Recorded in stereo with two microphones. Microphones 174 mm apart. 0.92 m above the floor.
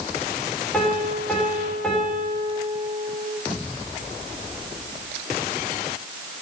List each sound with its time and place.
0.7 s a piano: 5° left (ahead or behind), 4 m